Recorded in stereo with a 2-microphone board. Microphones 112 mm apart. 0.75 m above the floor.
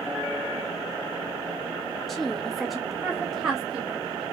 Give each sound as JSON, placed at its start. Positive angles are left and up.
{"t": 2.1, "sound": "a woman speaking", "side_deg": 0, "distance_m": 0.7}